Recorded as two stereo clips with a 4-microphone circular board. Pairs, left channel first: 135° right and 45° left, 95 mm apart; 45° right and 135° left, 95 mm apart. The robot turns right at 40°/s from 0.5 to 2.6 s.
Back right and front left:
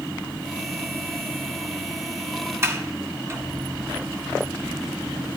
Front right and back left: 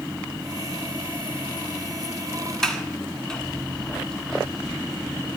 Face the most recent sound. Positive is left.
turn(degrees=30)